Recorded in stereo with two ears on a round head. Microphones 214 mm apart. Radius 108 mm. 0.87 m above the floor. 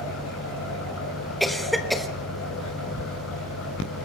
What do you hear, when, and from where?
0.0 s an engine running: 60° left (ahead or behind), 4.5 m
1.4 s a cough: centre (ahead or behind), 1.2 m